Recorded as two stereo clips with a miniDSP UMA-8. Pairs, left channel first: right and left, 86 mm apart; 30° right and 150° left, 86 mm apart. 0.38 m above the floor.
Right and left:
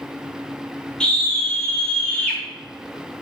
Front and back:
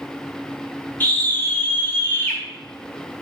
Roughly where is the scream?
Ahead right.